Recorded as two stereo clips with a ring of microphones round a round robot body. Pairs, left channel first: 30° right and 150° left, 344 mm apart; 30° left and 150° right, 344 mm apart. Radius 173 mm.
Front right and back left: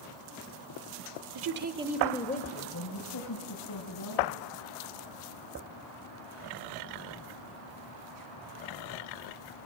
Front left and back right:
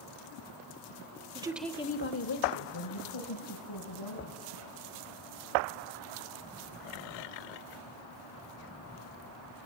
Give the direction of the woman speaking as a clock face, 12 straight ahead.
7 o'clock.